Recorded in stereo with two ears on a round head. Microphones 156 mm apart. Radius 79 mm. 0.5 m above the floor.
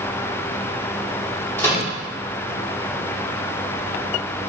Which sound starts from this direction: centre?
A microwave, at 1.6 s.